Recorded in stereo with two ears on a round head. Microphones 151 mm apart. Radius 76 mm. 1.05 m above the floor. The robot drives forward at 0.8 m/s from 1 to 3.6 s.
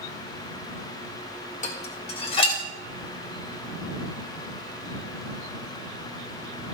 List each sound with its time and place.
1.6 s dishes clattering: 45° left (ahead or behind), 2 m; by 2.6 s 35° left (ahead or behind), 2.5 m